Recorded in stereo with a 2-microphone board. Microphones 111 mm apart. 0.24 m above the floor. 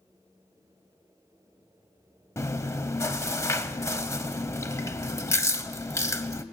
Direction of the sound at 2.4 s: 25° left (ahead or behind).